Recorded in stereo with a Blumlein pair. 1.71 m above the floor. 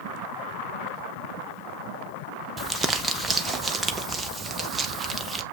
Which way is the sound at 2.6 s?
15° right.